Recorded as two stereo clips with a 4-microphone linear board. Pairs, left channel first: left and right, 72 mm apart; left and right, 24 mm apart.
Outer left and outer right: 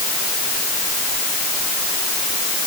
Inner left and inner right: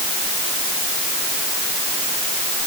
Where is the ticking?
No ticking in this recording.